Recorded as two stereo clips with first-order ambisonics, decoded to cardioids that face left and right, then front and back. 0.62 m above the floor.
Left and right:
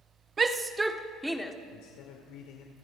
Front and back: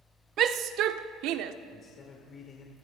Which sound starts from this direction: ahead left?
A man speaking, at 1.7 s.